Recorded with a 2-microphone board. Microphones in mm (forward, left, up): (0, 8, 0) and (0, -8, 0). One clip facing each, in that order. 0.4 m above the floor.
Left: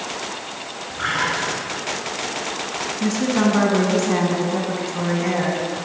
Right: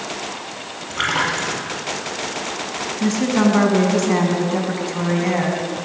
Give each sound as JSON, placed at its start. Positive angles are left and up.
{"t": 0.9, "sound": "a splash", "side_deg": -65, "distance_m": 4.0}
{"t": 3.0, "sound": "a woman speaking", "side_deg": -15, "distance_m": 3.0}